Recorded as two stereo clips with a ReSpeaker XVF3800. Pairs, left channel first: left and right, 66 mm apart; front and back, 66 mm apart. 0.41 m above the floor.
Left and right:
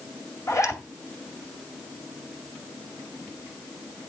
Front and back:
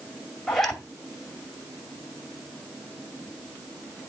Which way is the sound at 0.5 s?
85° left.